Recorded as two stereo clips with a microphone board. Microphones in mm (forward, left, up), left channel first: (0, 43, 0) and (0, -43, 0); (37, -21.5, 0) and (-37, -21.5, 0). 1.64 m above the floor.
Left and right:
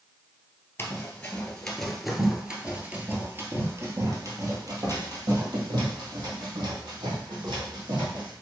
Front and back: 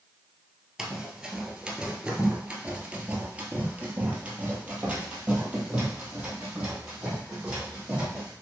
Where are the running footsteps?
95° left, 1.7 m; by 8.3 s 110° right, 4.5 m.